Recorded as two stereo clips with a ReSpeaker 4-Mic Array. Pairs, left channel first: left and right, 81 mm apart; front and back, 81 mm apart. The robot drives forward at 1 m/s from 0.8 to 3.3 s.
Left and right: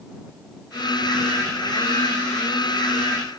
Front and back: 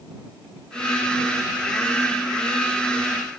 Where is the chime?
I don't hear a chime.